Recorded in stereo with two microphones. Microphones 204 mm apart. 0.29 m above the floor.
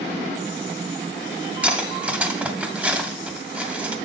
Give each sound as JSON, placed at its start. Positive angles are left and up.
{"t": 1.6, "sound": "cutlery clinking", "side_deg": -5, "distance_m": 1.0}